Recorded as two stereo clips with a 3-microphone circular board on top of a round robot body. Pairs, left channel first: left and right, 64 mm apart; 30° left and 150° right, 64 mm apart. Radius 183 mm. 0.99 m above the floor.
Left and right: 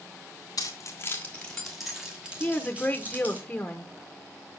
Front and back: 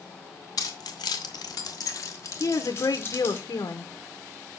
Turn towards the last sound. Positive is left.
turn(degrees=20)